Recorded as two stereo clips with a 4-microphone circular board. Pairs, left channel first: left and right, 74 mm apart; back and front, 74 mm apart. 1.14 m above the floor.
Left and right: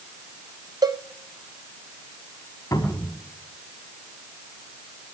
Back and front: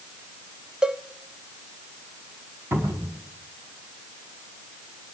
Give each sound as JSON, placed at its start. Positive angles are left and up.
{"t": 0.8, "sound": "a cowbell", "azimuth_deg": -75, "distance_m": 0.6}
{"t": 2.7, "sound": "a cupboard door", "azimuth_deg": 50, "distance_m": 5.0}